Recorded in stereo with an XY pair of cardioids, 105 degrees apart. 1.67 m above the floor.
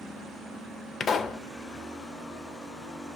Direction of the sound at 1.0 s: 50° left.